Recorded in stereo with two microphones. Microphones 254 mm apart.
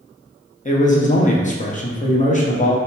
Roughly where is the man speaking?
Left.